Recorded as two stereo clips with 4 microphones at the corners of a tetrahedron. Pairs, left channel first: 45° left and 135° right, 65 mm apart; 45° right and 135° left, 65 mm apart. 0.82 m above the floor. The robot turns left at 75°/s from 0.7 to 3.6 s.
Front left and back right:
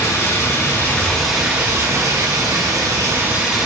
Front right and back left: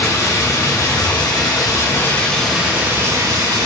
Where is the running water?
Straight ahead, 0.8 m; by 3.7 s 140° left, 0.8 m.